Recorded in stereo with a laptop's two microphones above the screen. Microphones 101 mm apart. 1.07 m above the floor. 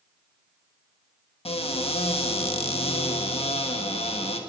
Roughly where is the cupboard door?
Left.